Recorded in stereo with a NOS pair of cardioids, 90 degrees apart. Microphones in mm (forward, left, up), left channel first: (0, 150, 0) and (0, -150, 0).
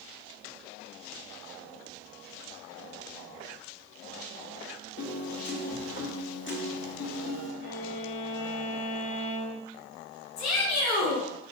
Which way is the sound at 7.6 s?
40° left.